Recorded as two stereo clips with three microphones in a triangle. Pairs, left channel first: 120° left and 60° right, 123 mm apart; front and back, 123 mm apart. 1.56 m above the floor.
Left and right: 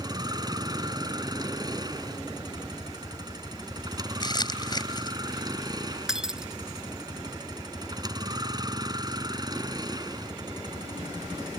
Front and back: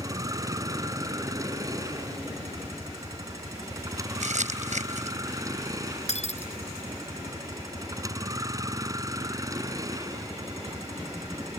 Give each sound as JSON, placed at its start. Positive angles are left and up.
{"t": 0.0, "sound": "a vehicle", "azimuth_deg": -115}
{"t": 4.2, "sound": "crumpling", "azimuth_deg": 175}
{"t": 6.1, "sound": "breaking glass", "azimuth_deg": 25}